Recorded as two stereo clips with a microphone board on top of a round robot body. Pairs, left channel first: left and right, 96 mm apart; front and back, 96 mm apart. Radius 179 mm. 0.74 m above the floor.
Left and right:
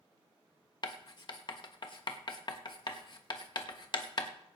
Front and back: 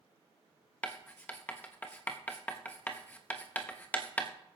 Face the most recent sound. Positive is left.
turn(degrees=70)